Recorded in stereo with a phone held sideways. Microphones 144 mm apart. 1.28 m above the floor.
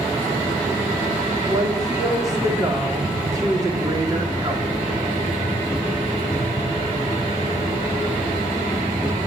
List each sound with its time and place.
1.5 s a woman speaking: 25° right (ahead or behind), 2.5 m